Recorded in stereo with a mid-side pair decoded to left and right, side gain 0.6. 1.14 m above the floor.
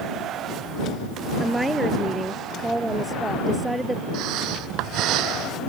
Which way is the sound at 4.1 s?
65° right.